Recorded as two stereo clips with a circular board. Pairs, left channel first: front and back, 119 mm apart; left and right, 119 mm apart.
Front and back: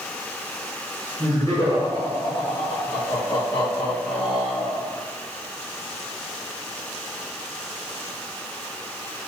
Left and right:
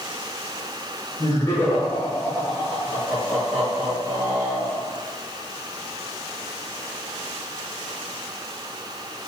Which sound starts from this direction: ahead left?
Laughter, at 1.2 s.